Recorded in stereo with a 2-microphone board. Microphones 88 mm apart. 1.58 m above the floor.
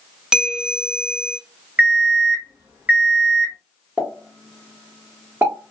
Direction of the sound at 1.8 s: 20° right (ahead or behind).